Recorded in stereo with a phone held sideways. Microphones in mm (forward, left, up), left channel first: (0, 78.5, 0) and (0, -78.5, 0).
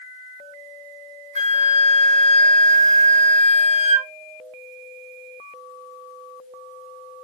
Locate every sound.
1.4 s a flute: 50° right (ahead or behind), 0.5 m